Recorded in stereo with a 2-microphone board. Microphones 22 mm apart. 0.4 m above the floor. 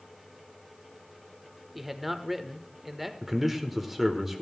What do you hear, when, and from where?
1.8 s a man speaking: 10° right (ahead or behind), 0.8 m
3.2 s a man speaking: 5° right (ahead or behind), 1.2 m